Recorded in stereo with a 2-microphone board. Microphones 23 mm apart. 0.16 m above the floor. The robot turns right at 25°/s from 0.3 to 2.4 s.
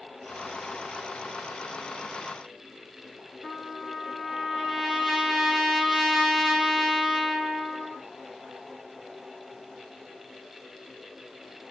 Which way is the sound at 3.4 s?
Centre (ahead or behind).